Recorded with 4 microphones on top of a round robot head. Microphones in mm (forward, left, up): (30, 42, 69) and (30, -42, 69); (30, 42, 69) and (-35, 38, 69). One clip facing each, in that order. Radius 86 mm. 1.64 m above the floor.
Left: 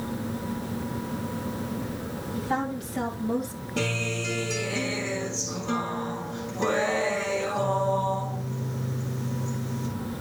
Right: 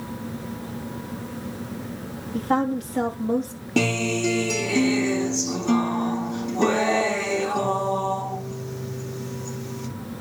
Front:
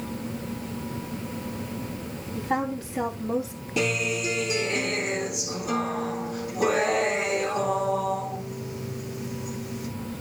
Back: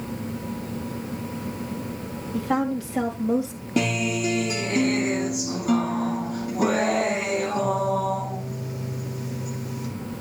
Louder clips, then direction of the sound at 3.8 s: Right 7 dB, back 2 dB; 115° right.